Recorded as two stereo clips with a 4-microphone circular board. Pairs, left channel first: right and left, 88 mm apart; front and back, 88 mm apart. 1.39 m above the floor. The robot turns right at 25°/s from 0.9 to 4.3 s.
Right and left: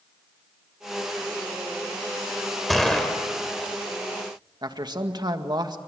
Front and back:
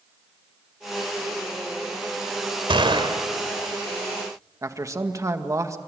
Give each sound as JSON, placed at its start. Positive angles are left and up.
{"t": 2.7, "sound": "a gunshot", "azimuth_deg": 180, "distance_m": 3.0}
{"t": 4.6, "sound": "a man speaking", "azimuth_deg": 125, "distance_m": 2.0}